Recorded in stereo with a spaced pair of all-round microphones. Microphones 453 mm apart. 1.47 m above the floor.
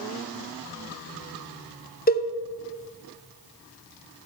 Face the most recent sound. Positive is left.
turn(degrees=20)  # may be behind; listen again after turning